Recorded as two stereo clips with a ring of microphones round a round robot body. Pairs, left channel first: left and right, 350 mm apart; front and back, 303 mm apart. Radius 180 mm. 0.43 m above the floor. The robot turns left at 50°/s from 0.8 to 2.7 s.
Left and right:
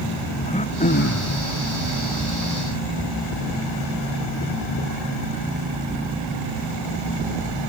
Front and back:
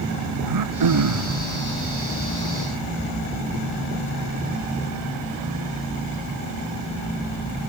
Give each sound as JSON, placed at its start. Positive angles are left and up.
{"t": 0.4, "sound": "throat clearing", "azimuth_deg": 160}